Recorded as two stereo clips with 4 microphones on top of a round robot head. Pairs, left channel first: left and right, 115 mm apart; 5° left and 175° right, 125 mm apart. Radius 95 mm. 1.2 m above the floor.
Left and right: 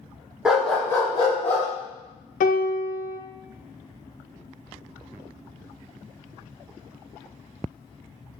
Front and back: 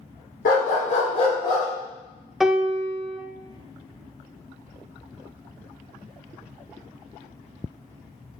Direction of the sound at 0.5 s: 5° right.